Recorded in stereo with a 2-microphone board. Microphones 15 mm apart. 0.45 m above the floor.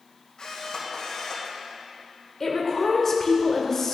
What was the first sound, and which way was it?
A camera shutter, 55° left (ahead or behind).